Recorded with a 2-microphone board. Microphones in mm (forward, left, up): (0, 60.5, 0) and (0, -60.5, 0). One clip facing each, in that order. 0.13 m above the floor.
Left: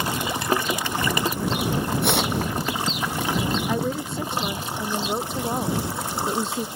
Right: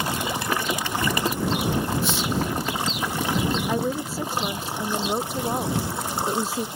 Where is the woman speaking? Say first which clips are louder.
Even; 5° right (ahead or behind).